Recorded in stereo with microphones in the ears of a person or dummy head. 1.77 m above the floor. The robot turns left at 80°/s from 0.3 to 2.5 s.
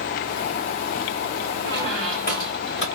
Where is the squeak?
160° right, 2 m; by 2.9 s 130° left, 2 m.